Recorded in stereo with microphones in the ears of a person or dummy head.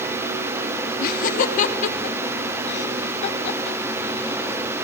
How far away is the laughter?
About 3 m.